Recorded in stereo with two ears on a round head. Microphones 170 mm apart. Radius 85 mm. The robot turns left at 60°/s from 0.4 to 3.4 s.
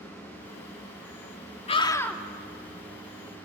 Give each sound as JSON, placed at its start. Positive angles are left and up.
{"t": 1.7, "sound": "a scream", "azimuth_deg": 35, "distance_m": 1.5}